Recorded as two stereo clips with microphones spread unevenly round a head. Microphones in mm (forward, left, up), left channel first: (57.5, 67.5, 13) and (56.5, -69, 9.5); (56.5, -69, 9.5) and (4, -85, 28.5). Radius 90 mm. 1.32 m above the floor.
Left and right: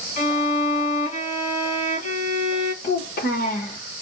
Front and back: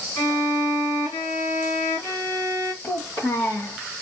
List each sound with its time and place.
0.2 s a violin: 85° left, 1.8 m
2.8 s a child speaking: 75° left, 1.0 m